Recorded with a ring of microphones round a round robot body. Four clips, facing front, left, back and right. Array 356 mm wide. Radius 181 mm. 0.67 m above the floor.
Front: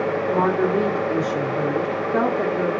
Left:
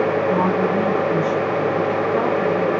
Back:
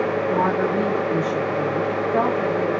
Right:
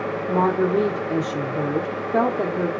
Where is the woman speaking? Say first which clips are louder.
Left 2 dB, front 3 dB; 65° right, 1.8 m.